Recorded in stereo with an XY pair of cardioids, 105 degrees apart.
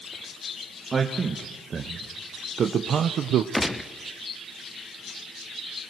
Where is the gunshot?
15° left, 1.0 m.